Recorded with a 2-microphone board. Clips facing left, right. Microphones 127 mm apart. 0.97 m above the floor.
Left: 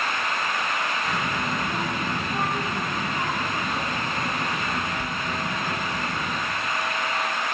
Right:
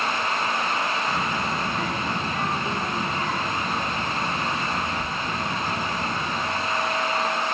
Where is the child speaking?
30° left (ahead or behind), 6 m.